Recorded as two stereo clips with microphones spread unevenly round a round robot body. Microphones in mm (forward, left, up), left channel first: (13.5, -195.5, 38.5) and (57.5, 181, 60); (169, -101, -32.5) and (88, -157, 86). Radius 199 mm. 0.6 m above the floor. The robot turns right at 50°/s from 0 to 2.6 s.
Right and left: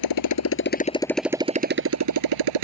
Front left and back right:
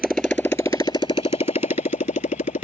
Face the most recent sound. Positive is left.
turn(degrees=65)